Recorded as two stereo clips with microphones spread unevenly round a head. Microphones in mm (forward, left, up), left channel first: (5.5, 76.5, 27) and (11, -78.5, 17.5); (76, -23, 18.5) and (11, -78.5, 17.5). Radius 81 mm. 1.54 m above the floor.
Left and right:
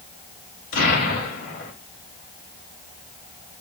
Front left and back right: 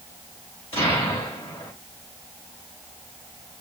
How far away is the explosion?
About 2.5 m.